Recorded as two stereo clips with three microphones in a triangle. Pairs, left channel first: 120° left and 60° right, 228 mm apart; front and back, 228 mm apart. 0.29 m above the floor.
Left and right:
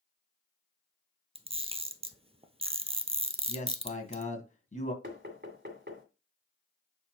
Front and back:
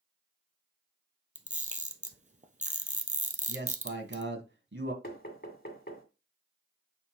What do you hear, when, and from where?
1.4 s a camera shutter: 125° right, 1.1 m
3.5 s a man speaking: 170° left, 2.5 m
5.0 s knocking: 30° right, 1.9 m